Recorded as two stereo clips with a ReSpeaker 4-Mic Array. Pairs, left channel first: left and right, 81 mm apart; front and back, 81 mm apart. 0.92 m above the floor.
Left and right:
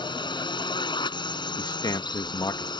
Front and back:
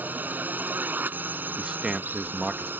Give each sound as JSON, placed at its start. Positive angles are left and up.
{"t": 0.0, "sound": "a drone", "azimuth_deg": 110}
{"t": 1.6, "sound": "a man speaking", "azimuth_deg": 100}